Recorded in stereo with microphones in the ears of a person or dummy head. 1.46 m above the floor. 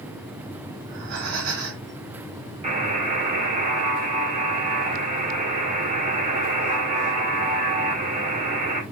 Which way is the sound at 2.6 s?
35° right (ahead or behind).